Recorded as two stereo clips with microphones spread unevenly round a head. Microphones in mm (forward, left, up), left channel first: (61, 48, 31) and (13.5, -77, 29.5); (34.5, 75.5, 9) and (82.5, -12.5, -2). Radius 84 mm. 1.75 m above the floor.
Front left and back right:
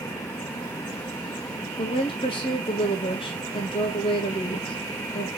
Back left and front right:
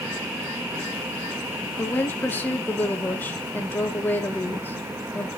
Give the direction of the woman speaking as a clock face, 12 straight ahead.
9 o'clock.